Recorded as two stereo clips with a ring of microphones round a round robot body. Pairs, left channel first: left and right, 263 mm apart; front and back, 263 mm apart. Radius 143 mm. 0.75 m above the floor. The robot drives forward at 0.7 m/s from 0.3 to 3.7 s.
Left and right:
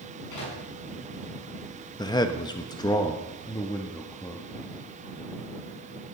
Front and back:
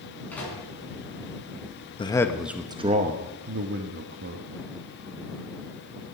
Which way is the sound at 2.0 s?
40° left.